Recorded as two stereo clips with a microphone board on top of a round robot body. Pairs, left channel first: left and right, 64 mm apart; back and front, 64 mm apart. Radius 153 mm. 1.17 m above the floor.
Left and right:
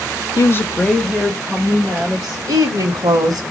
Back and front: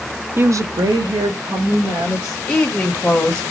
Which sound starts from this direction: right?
A woman speaking, at 2.5 s.